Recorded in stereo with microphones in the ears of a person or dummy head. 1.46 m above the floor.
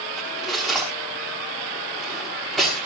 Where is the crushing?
I don't hear crushing.